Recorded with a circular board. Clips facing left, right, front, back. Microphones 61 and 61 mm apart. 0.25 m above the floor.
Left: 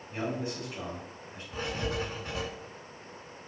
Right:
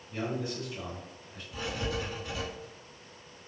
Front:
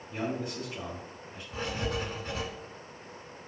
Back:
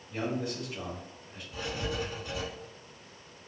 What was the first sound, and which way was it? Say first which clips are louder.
A man speaking: even, back 1 dB; 85° left.